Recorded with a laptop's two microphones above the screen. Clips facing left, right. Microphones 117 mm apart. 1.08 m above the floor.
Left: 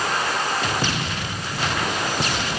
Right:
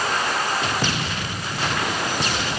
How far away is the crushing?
I don't hear crushing.